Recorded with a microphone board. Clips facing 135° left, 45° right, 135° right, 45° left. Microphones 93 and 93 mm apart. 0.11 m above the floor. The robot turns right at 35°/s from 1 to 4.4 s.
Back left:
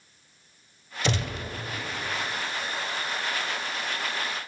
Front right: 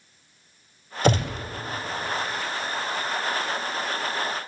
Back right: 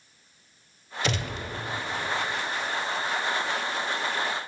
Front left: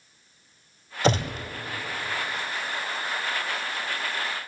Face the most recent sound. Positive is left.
turn(degrees=115)